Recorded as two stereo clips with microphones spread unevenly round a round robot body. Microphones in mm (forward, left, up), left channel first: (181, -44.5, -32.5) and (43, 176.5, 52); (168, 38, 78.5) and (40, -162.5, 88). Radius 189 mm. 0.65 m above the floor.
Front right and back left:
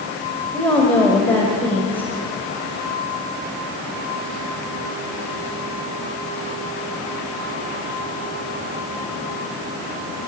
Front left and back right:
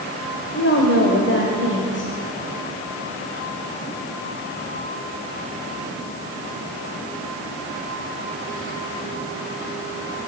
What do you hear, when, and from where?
0.5 s a woman speaking: 20° left, 3.5 m